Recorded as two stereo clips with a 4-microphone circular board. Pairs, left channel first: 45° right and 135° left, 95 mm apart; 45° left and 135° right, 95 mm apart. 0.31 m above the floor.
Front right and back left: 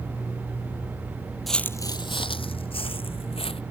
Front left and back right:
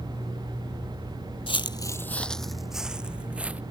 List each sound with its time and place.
1.5 s footsteps: 45° left; by 3.6 s 60° right